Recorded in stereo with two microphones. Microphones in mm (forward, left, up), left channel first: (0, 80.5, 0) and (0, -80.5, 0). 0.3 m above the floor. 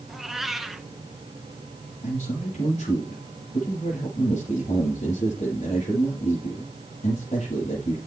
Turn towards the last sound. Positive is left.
turn(degrees=50)  # may be behind; listen again after turning